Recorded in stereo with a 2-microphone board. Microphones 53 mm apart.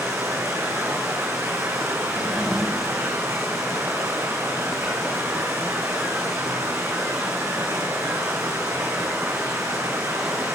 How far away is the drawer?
About 6.5 m.